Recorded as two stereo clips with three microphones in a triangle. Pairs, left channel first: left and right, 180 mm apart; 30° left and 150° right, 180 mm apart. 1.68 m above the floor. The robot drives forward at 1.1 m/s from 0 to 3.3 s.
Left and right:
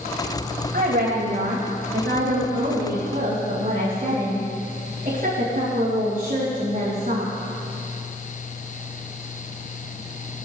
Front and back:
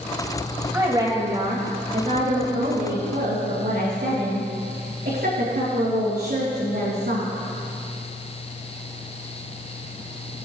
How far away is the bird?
No bird in this recording.